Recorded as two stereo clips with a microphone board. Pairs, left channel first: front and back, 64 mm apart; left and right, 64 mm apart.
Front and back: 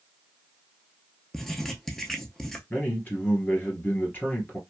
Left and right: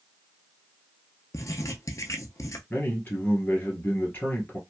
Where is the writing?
85° left, 0.6 m.